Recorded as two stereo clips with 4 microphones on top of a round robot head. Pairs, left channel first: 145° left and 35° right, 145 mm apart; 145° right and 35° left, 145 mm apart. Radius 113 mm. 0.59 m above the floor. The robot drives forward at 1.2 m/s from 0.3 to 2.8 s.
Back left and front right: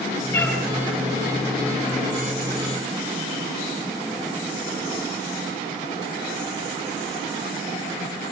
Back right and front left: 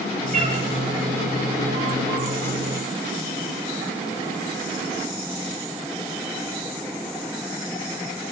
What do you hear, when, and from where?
0.3 s a cat meowing: 65° left, 8.5 m; by 0.6 s 70° left, 8 m